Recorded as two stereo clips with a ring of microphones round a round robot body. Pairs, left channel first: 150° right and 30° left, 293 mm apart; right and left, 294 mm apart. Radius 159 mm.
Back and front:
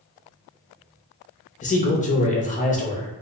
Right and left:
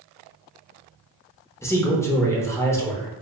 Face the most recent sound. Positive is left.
turn(degrees=-160)